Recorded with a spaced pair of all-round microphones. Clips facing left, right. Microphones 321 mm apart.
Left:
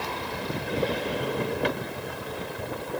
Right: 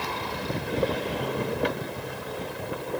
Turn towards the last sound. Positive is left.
No sound to turn to.